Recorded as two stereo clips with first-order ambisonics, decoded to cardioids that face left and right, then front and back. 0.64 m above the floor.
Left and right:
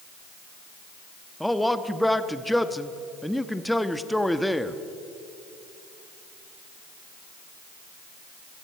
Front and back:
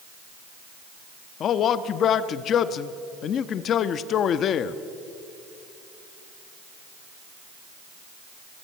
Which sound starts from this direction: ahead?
A man speaking, at 1.4 s.